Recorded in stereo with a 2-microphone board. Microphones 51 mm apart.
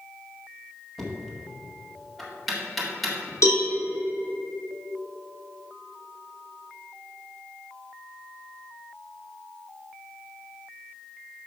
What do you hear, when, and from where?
1.0 s knocking: centre (ahead or behind), 1.7 m
3.4 s a cowbell: 85° left, 2.0 m